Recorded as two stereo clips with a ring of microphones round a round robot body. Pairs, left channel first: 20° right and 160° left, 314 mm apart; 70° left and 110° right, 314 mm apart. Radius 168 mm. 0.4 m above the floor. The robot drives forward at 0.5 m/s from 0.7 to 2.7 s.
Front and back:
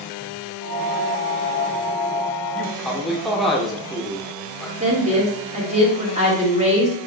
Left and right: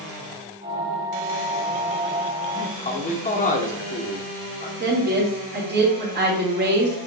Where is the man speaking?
55° left, 1.0 m; by 4.7 s 65° left, 1.0 m.